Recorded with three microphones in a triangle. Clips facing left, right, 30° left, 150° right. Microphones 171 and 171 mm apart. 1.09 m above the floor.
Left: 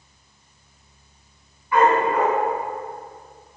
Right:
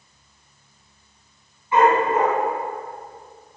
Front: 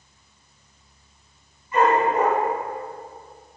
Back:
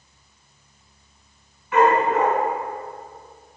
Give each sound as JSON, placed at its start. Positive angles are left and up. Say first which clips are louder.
{"t": 1.7, "sound": "a dog barking", "louder": "right 1 dB, back 1 dB", "azimuth_deg": -155, "distance_m": 4.5}